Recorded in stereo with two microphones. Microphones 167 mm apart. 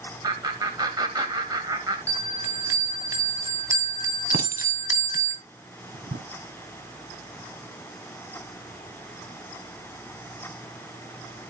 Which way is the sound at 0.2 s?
25° right (ahead or behind).